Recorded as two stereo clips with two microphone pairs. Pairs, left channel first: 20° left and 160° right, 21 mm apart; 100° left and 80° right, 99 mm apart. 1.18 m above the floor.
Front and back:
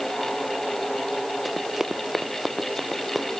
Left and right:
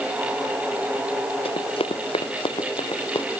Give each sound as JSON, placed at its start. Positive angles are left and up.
{"t": 1.4, "sound": "running footsteps", "azimuth_deg": 120}